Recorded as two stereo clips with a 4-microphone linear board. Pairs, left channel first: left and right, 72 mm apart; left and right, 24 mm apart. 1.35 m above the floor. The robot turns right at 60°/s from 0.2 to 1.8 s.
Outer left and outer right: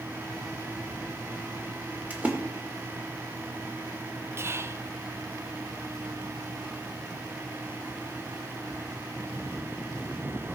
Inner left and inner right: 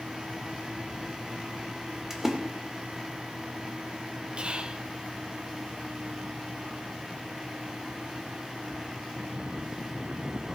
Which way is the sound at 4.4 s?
35° right (ahead or behind).